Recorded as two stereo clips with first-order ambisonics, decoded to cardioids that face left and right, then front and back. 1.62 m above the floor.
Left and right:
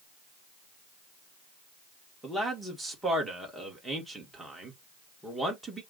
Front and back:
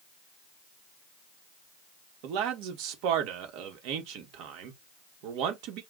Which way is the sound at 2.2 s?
175° right.